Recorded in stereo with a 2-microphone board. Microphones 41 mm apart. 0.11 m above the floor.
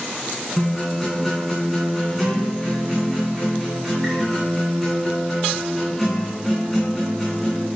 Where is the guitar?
Centre (ahead or behind), 3.5 m.